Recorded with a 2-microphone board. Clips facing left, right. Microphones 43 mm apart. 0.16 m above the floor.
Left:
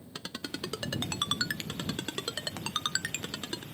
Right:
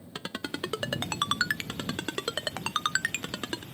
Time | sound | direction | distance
0.1 | a ringtone | 30° right (ahead or behind) | ?